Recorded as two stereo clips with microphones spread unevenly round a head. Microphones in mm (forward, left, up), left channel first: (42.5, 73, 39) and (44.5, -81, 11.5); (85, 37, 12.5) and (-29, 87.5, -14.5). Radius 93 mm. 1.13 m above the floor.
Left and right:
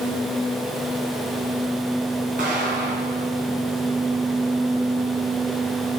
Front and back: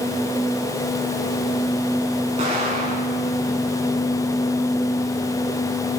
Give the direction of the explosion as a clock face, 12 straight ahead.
5 o'clock.